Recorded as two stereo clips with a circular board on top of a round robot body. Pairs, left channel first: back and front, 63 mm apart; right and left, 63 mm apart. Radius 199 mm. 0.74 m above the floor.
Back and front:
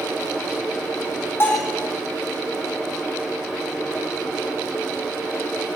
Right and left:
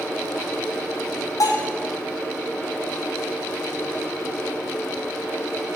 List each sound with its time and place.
1.4 s a bell: 125° right, 2.5 m